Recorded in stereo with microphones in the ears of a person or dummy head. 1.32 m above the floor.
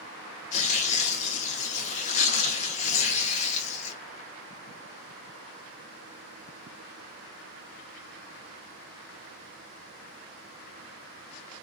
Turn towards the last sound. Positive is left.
turn(degrees=30)  # may be behind; listen again after turning